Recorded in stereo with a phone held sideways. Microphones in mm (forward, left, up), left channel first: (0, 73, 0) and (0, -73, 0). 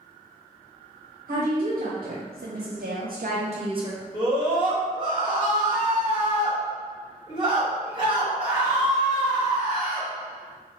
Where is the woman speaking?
55° right (ahead or behind), 1.2 m; by 4.0 s 25° right (ahead or behind), 0.6 m.